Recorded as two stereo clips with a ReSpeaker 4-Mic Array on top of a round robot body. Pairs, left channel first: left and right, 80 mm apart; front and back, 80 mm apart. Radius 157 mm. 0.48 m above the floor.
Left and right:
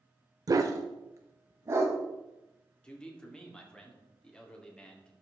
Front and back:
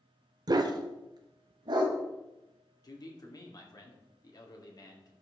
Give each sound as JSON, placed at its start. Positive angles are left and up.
{"t": 0.5, "sound": "a dog barking", "azimuth_deg": -140, "distance_m": 0.5}
{"t": 2.8, "sound": "a man speaking", "azimuth_deg": 15, "distance_m": 2.0}